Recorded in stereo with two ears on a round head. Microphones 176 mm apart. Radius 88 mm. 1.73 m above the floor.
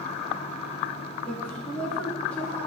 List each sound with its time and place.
1.2 s a woman speaking: 5° left (ahead or behind), 2 m